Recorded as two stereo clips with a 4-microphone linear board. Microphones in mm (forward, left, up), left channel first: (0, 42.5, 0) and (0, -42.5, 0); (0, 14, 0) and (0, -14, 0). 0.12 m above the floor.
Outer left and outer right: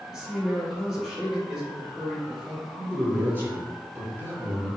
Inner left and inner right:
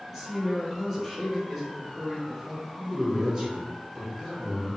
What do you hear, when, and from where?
0.1 s a man speaking: 5° right (ahead or behind), 1.7 m
2.8 s a man speaking: 25° right (ahead or behind), 1.5 m